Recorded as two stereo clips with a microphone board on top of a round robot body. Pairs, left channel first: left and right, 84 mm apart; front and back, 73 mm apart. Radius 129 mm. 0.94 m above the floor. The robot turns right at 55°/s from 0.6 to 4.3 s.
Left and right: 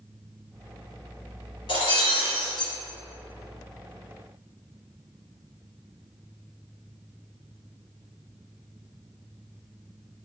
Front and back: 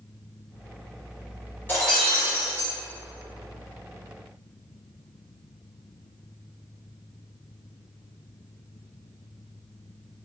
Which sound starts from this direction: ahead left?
Breaking glass, at 1.7 s.